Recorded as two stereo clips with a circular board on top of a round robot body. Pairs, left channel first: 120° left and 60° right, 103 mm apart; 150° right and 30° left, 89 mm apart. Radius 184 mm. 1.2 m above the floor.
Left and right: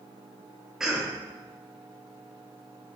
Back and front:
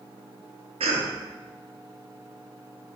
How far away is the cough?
About 0.9 m.